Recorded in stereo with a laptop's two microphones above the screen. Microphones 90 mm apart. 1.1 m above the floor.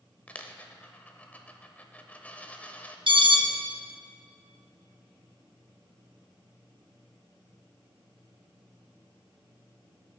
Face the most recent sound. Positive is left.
turn(degrees=-65)  # may be behind; listen again after turning